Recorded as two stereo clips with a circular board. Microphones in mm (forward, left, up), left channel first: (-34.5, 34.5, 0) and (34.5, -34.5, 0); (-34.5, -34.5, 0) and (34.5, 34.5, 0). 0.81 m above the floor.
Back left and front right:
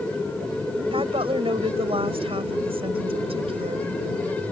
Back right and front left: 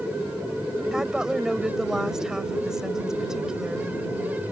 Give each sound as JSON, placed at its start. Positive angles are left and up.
{"t": 0.9, "sound": "a woman speaking", "azimuth_deg": -40}